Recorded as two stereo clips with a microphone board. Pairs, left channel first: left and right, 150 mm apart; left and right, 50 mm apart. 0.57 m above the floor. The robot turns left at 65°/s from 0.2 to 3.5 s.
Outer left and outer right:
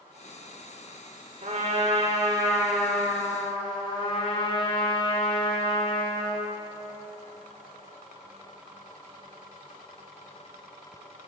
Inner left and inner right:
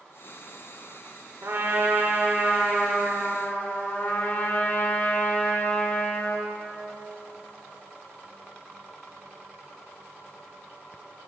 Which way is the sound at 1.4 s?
90° right.